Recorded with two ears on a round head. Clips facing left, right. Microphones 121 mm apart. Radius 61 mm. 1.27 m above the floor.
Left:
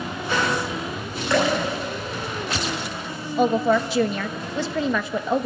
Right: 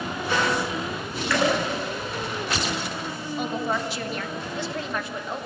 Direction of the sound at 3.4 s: 75° left (ahead or behind).